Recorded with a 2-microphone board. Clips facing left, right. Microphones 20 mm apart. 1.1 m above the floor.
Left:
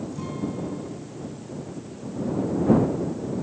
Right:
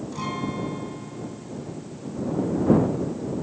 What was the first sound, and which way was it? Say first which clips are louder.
A guitar: right 5 dB; 45° right (ahead or behind).